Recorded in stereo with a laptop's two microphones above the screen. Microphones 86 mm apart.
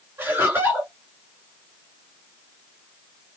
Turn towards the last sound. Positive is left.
turn(degrees=-20)  # may be behind; listen again after turning